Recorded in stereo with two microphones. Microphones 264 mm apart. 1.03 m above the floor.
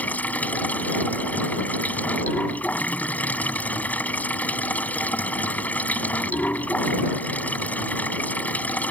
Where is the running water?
5° left (ahead or behind).